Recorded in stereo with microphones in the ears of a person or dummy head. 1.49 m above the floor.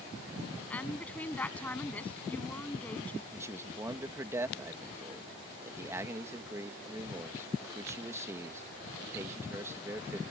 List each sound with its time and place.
0.7 s a woman speaking: 10° left (ahead or behind)
3.3 s a man speaking: 15° right (ahead or behind)